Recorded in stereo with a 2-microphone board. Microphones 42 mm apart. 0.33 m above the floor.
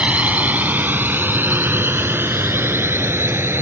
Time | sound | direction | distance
0.0 | a drone | 30° right (ahead or behind) | ?